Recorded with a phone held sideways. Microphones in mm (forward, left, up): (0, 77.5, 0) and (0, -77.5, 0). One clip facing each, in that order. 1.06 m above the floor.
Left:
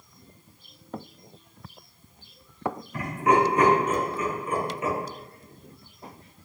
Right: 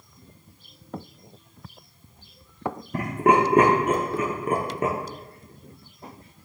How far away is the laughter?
About 1.0 m.